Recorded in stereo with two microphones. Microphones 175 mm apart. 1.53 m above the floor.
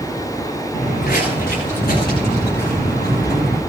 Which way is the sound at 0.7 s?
65° left (ahead or behind).